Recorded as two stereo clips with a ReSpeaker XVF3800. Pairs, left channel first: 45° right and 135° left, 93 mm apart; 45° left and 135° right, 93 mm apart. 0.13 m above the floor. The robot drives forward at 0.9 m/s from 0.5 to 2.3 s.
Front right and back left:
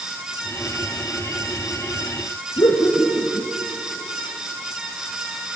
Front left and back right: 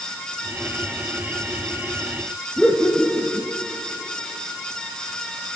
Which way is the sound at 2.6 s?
50° right.